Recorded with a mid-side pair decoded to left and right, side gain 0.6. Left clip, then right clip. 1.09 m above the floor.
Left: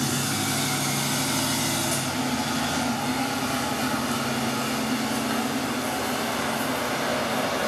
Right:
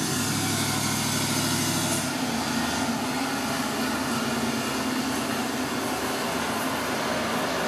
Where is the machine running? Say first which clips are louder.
Left 1 dB; 35° left, 0.9 m.